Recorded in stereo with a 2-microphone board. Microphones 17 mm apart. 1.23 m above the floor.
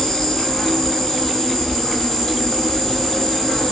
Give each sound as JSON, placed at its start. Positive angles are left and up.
{"t": 0.0, "sound": "an insect", "side_deg": 70, "distance_m": 1.4}